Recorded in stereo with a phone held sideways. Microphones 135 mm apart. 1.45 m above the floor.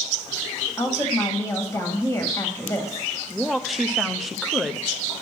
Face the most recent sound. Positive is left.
turn(degrees=0)  # may be behind; listen again after turning